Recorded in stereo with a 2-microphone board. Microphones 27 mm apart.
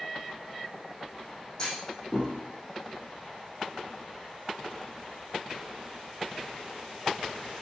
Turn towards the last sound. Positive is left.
turn(degrees=25)  # may be behind; listen again after turning